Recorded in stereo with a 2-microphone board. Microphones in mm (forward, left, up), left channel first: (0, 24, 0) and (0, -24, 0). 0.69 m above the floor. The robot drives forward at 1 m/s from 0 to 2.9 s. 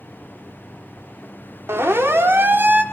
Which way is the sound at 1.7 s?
60° right (ahead or behind).